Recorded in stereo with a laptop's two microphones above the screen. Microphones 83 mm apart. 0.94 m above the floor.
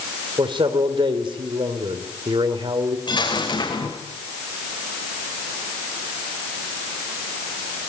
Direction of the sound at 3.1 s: 70° left (ahead or behind).